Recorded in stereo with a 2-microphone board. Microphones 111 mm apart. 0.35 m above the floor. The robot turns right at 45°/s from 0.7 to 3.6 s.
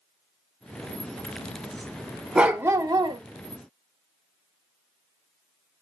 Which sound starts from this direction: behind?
A dog barking, at 2.4 s.